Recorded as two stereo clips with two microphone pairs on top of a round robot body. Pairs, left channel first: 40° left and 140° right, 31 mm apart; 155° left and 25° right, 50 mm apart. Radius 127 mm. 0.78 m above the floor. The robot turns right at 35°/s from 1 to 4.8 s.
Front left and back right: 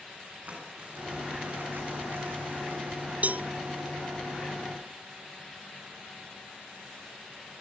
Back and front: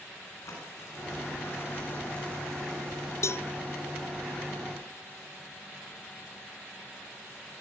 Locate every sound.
0.5 s crumpling: straight behind, 9 m; by 3.1 s 105° right, 9 m
3.2 s a cowbell: 175° right, 0.6 m; by 3.5 s 165° right, 0.6 m